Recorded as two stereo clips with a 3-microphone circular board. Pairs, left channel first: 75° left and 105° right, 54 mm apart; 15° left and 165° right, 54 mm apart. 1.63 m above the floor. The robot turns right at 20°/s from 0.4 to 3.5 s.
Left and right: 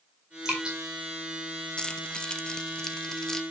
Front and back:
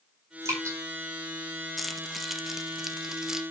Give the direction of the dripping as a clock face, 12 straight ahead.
6 o'clock.